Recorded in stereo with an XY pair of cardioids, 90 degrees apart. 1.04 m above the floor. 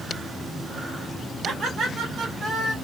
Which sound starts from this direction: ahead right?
Laughter, at 1.4 s.